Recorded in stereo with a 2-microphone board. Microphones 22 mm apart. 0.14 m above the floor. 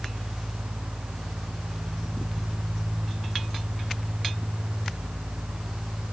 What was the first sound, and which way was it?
Only background noise.